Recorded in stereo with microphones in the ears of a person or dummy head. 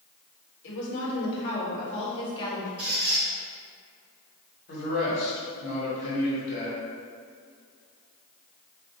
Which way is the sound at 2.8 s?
25° right (ahead or behind).